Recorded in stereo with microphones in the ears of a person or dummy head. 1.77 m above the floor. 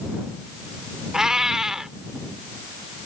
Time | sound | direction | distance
1.1 | a cat meowing | 5° right (ahead or behind) | ?